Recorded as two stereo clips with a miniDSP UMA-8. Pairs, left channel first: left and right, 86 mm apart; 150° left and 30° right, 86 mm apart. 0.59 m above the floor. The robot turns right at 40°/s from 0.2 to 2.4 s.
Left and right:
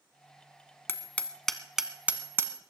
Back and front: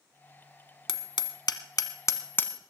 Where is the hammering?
150° left, 1.2 m; by 2.6 s 150° right, 1.2 m.